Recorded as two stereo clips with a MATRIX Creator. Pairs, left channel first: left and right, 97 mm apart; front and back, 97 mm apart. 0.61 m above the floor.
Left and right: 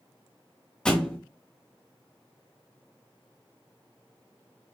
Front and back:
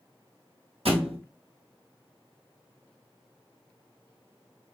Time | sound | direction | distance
0.8 | a thud | 170° left | 1.1 m